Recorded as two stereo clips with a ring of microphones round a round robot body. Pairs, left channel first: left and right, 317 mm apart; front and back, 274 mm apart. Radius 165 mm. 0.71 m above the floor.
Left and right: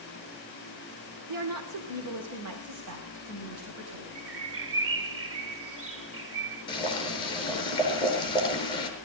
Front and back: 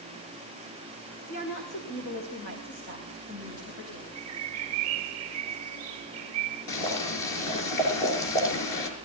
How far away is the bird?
About 1.0 m.